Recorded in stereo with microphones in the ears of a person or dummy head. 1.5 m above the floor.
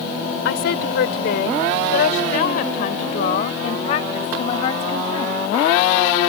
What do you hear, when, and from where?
0.5 s a woman speaking: 65° left (ahead or behind); by 5.4 s 25° left (ahead or behind)